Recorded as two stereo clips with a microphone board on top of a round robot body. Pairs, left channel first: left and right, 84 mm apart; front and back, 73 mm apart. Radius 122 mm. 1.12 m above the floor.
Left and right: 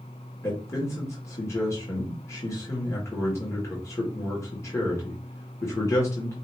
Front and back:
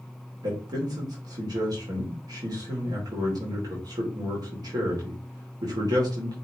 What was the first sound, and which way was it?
A man speaking, 145° left.